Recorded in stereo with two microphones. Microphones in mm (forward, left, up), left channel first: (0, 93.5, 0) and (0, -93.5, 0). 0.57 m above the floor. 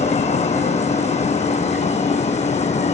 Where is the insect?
40° left (ahead or behind).